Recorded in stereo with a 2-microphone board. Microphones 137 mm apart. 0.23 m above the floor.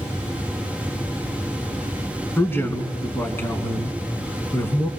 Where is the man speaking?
15° left (ahead or behind), 2.5 m.